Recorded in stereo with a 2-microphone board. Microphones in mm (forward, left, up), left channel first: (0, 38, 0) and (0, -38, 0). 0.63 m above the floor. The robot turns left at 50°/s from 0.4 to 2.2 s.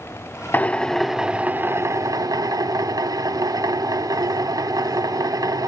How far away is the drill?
About 0.6 m.